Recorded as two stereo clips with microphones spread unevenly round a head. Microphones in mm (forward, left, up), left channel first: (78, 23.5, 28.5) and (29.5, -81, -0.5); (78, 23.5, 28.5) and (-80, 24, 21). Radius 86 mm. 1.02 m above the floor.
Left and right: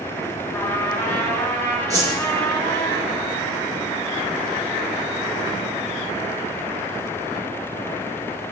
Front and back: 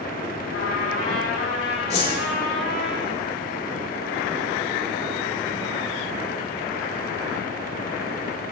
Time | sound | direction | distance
0.5 | a trumpet | 10° right | 8 m
1.9 | a whoosh | 55° right | 7 m